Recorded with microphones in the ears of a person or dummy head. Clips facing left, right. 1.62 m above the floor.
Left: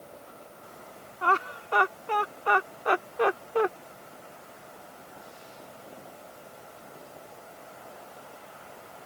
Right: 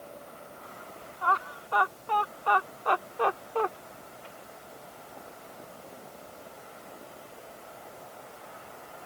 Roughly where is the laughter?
Left.